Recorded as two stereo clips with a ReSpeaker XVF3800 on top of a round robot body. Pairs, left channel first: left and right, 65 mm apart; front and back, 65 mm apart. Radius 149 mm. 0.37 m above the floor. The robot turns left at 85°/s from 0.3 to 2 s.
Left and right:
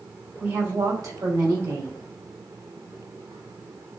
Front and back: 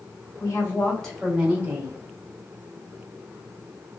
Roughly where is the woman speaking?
Ahead right.